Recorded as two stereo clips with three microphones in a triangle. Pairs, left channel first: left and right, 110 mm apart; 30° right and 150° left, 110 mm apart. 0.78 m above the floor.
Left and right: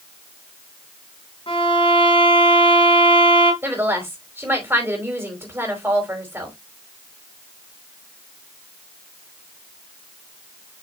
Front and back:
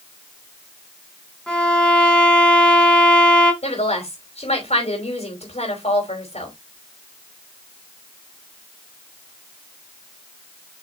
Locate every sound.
1.5 s a violin: 55° left, 3 m
3.6 s a woman speaking: 20° right, 4.5 m